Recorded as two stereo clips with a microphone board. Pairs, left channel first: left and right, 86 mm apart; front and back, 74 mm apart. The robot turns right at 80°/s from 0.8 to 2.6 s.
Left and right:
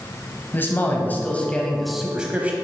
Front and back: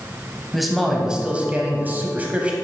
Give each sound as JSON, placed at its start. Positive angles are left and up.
{"t": 0.5, "sound": "a man speaking", "azimuth_deg": 90, "distance_m": 1.2}